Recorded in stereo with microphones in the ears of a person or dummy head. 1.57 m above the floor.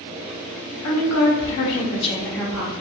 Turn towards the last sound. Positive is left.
turn(degrees=-10)  # may be behind; listen again after turning